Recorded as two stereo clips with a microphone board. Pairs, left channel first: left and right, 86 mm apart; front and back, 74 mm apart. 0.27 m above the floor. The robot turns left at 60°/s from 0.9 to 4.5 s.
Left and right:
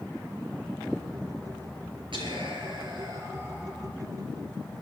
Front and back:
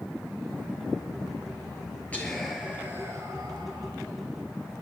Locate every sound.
2.1 s whispering: 70° right, 6.5 m; by 3.9 s 175° right, 6.5 m